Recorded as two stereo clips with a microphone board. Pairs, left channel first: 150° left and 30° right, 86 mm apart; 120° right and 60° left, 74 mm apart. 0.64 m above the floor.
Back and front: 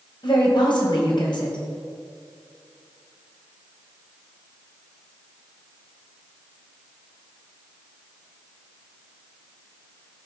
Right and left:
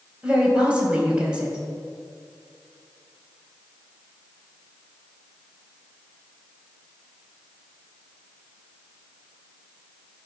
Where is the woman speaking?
135° left, 3 m.